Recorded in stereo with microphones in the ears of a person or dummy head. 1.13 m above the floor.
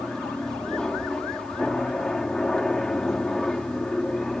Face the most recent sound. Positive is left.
turn(degrees=5)  # may be behind; listen again after turning